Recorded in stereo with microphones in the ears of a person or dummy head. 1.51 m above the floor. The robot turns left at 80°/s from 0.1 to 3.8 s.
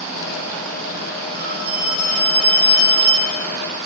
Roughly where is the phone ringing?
Right.